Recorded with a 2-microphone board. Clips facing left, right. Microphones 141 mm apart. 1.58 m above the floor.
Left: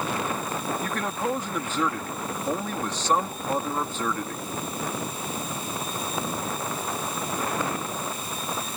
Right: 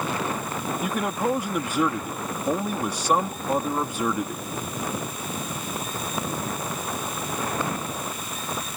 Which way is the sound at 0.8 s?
10° right (ahead or behind).